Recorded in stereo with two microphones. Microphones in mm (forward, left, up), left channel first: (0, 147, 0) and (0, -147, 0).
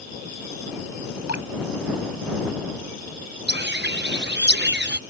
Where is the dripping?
55° left (ahead or behind).